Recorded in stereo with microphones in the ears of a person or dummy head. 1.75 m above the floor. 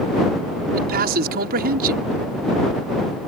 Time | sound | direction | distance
0.7 | a man speaking | 50° right (ahead or behind) | ?